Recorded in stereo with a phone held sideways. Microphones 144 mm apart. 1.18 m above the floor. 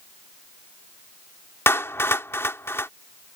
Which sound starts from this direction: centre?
A clap, at 1.7 s.